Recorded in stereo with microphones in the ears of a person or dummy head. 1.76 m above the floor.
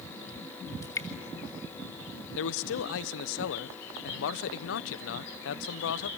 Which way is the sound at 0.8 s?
20° left (ahead or behind).